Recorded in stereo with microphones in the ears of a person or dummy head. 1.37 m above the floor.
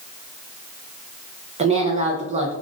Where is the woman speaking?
35° right (ahead or behind), 0.7 m.